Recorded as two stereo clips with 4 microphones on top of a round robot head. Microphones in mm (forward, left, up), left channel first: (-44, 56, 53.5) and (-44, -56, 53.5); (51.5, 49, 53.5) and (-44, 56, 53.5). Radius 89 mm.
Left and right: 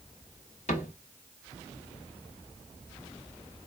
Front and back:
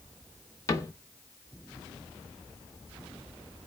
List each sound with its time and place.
0.7 s a cupboard door: 45° left, 0.8 m